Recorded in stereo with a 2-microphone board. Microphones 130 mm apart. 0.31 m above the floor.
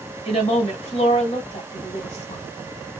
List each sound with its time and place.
0.2 s a woman speaking: 55° left (ahead or behind), 1.6 m